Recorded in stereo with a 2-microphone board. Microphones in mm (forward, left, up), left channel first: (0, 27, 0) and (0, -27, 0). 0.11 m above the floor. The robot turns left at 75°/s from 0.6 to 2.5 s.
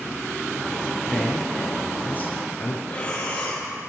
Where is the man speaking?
175° right, 2.0 m; by 2.8 s 80° left, 2.0 m.